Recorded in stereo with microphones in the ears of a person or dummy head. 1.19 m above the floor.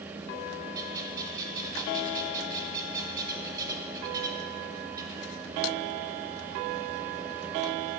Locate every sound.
0.8 s a bird: 20° right (ahead or behind), 1.2 m